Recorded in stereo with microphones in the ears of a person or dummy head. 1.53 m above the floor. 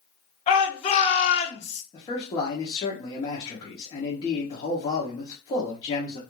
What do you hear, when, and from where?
0.5 s a shout: 30° left (ahead or behind), 1.4 m; by 1.8 s 35° left (ahead or behind), 0.6 m
1.9 s a man speaking: 25° left (ahead or behind), 0.7 m